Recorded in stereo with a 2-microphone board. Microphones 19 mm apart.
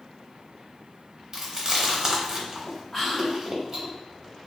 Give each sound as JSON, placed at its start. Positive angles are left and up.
{"t": 1.3, "sound": "chewing", "side_deg": -25, "distance_m": 0.8}
{"t": 2.9, "sound": "whispering", "side_deg": 5, "distance_m": 1.8}